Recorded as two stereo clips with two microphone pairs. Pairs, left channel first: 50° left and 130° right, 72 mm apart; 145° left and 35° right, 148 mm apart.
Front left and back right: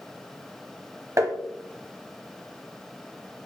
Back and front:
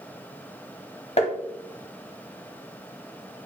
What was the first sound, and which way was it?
Tapping, 175° right.